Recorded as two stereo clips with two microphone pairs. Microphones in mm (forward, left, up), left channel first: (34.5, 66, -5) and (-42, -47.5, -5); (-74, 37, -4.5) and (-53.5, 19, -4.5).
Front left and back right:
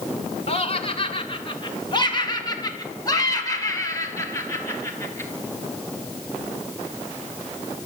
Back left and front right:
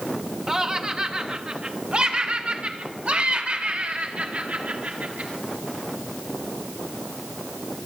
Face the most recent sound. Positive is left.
turn(degrees=-15)